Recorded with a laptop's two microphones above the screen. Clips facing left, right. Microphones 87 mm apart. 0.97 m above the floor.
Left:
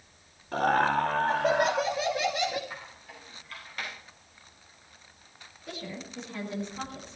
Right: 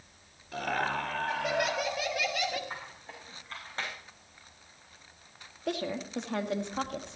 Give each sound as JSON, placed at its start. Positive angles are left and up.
{"t": 0.5, "sound": "laughter", "side_deg": 50, "distance_m": 2.0}
{"t": 2.7, "sound": "a squeak", "side_deg": -30, "distance_m": 5.5}
{"t": 5.7, "sound": "a woman speaking", "side_deg": -65, "distance_m": 2.0}